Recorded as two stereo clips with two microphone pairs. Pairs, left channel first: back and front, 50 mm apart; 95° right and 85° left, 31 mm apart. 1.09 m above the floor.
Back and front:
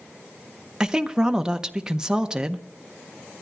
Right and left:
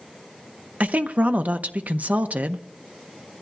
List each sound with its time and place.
0.8 s a woman speaking: 75° left, 0.6 m